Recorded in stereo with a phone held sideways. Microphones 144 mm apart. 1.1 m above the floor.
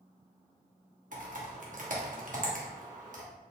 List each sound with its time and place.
1.1 s typing on a keyboard: 60° right (ahead or behind), 0.9 m